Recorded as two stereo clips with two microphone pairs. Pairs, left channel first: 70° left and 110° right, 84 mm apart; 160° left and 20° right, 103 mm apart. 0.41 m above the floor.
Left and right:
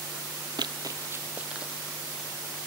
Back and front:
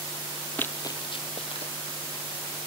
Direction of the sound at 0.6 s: 125° right.